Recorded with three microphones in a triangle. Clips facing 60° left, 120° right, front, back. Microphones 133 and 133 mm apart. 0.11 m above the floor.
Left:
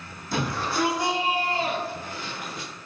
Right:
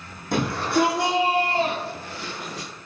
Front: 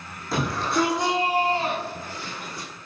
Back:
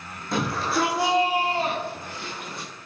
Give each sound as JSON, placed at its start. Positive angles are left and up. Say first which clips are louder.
{"t": 0.3, "sound": "a shout", "louder": "right 5 dB, front 1 dB", "azimuth_deg": -90, "distance_m": 3.5}